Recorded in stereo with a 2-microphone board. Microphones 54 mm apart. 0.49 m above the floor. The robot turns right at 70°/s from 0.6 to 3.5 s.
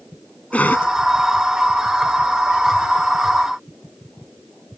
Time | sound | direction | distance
0.5 | a cough | 25° left (ahead or behind) | ?